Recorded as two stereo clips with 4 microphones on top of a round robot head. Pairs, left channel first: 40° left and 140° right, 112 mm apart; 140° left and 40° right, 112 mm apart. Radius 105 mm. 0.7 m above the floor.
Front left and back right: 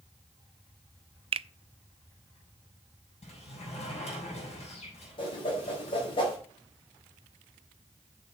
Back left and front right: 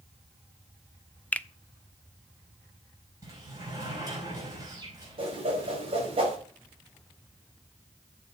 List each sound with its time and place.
1.3 s a finger snap: 145° right, 0.5 m
3.2 s a sliding door: 20° left, 6 m
5.2 s a whoosh: 5° right, 4.5 m